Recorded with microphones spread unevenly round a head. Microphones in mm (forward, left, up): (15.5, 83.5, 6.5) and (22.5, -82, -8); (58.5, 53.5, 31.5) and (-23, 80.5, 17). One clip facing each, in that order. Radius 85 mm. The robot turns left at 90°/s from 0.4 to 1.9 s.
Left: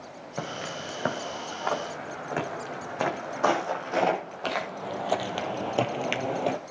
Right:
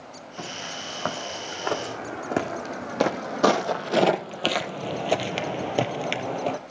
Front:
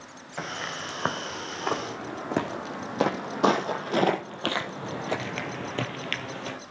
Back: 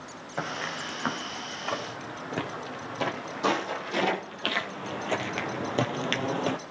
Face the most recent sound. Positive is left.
turn(degrees=160)